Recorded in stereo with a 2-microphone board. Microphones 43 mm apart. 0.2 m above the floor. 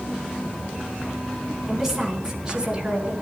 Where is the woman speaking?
5° right (ahead or behind), 2.5 m; by 3.1 s 25° right (ahead or behind), 3 m.